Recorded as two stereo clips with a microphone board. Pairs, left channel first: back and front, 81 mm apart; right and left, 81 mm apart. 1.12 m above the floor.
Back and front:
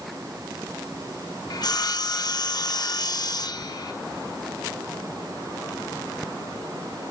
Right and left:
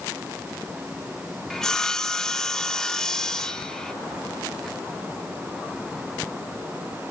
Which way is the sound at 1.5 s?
170° right.